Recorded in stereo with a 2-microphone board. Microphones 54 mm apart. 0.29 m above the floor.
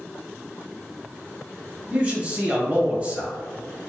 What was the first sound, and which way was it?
A man speaking, 30° right (ahead or behind).